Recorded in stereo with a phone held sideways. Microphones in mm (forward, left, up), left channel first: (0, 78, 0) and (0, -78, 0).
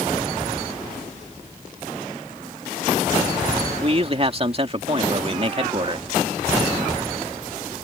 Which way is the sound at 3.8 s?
40° right (ahead or behind).